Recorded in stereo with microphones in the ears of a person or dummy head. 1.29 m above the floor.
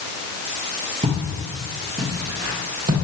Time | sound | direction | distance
1.0 | footsteps | 35° right (ahead or behind) | 1.9 m